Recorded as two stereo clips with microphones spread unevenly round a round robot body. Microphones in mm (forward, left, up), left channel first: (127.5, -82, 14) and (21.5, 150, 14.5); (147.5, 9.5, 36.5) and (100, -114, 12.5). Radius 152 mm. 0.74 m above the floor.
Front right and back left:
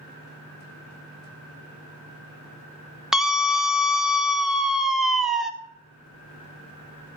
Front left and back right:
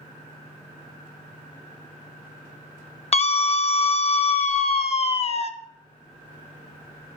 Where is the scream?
25° left, 0.8 m.